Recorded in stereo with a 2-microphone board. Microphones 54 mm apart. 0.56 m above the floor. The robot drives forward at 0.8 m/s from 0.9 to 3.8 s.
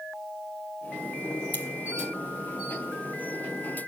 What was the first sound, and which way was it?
Scissors, 35° left (ahead or behind).